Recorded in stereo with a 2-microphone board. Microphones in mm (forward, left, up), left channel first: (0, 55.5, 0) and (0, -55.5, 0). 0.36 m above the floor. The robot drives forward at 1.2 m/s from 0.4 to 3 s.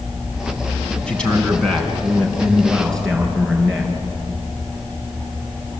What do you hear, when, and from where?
1.1 s a man speaking: 10° left (ahead or behind), 2.5 m; by 3.9 s 5° left (ahead or behind), 4.5 m